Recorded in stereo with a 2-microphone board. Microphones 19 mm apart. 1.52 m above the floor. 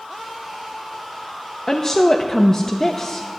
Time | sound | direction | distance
1.7 | a woman speaking | 35° left (ahead or behind) | 0.7 m